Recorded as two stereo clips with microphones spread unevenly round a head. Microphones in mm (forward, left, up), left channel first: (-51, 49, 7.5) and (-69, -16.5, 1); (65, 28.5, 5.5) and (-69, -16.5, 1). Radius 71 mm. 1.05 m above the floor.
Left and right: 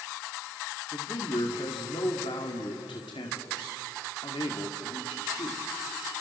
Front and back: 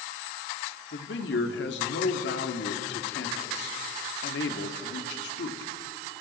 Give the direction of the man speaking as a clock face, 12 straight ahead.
11 o'clock.